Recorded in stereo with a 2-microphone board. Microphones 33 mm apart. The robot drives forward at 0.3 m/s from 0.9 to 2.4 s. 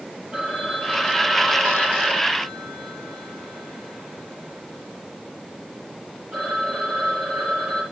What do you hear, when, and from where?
0.3 s a phone ringing: 35° right (ahead or behind), 9.5 m